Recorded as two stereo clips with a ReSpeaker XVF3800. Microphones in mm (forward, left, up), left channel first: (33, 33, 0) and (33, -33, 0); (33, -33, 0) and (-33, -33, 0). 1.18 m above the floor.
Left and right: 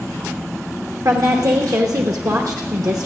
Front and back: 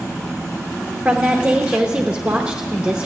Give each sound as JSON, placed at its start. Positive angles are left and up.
{"t": 1.1, "sound": "a woman speaking", "azimuth_deg": -105, "distance_m": 1.0}